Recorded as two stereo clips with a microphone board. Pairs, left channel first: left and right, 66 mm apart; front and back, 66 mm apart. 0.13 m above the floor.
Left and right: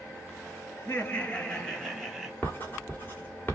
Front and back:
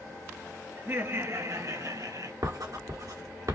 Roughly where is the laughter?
Behind left.